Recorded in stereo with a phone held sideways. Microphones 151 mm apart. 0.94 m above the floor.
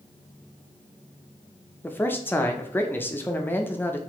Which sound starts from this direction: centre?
A man speaking, at 1.8 s.